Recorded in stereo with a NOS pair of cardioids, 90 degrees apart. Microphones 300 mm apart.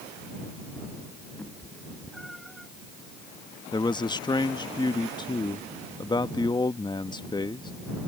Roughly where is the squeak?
I don't hear a squeak.